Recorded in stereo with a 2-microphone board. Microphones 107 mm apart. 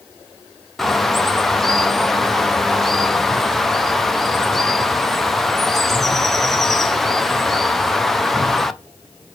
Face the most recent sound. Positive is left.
turn(degrees=0)  # may be behind; listen again after turning